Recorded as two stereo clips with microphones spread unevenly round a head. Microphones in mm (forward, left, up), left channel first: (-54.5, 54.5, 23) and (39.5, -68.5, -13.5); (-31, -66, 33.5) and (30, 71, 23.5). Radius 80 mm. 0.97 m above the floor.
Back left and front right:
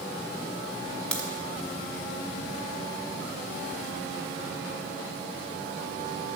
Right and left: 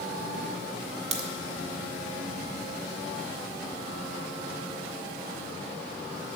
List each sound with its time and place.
1.1 s a crack: 35° left, 1.4 m